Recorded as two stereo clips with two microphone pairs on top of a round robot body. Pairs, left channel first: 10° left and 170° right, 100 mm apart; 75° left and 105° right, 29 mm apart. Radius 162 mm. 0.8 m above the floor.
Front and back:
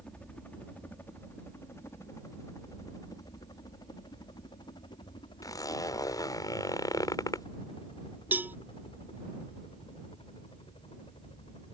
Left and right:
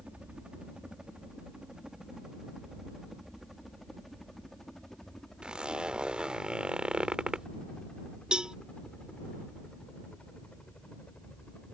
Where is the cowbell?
105° right.